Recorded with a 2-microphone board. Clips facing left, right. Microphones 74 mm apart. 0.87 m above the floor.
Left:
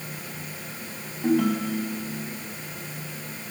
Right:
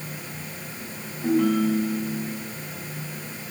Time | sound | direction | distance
1.2 | a ringtone | 70° left (ahead or behind) | 4.5 m